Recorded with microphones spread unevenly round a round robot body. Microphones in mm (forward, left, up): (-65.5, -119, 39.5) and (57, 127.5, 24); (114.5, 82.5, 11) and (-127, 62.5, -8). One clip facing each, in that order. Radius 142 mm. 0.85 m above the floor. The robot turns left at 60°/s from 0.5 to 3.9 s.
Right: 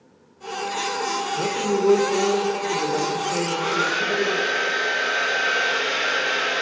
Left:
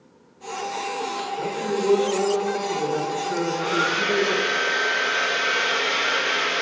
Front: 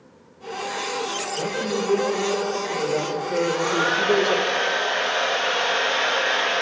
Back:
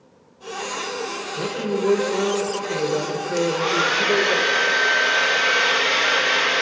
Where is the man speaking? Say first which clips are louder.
Right 3 dB, back 2 dB; 135° right, 3 m; by 4.4 s 75° left, 3 m.